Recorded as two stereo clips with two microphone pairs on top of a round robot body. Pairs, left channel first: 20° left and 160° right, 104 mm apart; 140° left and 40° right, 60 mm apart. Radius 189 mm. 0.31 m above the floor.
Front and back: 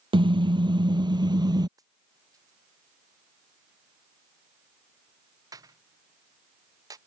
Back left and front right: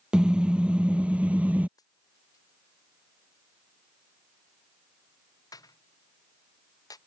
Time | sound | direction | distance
0.1 | a car horn | 115° right | ?
1.8 | a dropped coin | 145° left | ?